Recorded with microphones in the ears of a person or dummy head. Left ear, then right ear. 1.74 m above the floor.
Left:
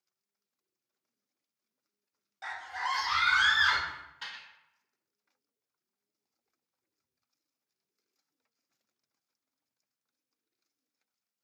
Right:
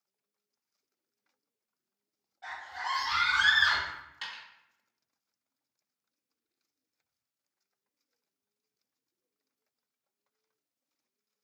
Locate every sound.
2.4 s a scream: 55° left (ahead or behind), 0.6 m; by 3.8 s 20° left (ahead or behind), 1.5 m
3.9 s a dropped coin: 25° right (ahead or behind), 1.4 m